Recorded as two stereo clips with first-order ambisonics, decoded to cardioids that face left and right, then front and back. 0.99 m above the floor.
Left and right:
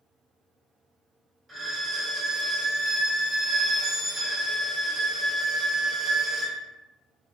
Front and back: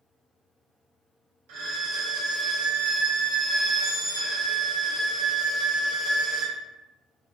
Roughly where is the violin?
Behind.